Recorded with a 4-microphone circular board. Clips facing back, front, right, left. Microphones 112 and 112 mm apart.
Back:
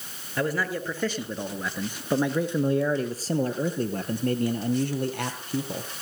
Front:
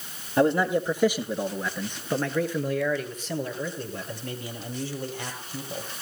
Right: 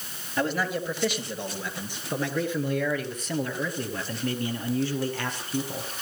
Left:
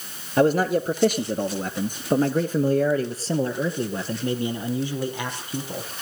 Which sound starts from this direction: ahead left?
A man speaking, at 0.4 s.